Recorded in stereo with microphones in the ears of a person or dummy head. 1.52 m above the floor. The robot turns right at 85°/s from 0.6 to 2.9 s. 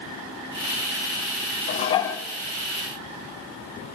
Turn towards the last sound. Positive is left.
turn(degrees=-125)